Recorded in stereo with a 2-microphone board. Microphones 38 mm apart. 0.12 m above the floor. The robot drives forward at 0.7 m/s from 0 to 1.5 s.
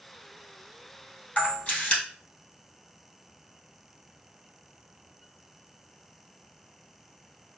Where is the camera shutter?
30° left (ahead or behind), 2.5 m.